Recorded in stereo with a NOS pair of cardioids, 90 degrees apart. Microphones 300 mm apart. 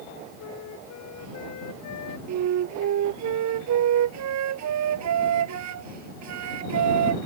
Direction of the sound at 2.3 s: 65° right.